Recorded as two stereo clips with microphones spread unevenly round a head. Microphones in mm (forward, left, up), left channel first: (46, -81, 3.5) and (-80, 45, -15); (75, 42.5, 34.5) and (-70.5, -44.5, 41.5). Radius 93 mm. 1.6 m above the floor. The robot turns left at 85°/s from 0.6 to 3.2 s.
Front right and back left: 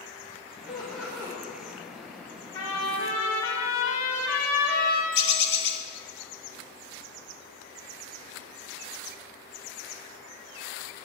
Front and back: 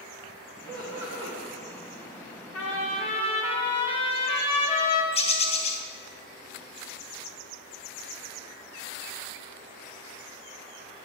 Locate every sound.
0.7 s laughter: 110° right, 2 m; by 1.4 s 170° right, 2 m
2.5 s a trumpet: 25° left, 1.7 m; by 5.0 s 30° right, 1.7 m
5.1 s a bird: 25° right, 0.9 m